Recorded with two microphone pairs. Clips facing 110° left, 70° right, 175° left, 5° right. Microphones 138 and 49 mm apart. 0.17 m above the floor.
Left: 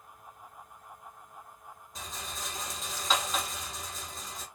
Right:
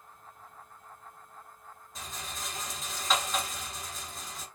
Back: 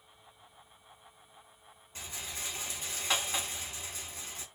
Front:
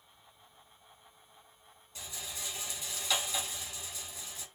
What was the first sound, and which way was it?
A rattle, 160° right.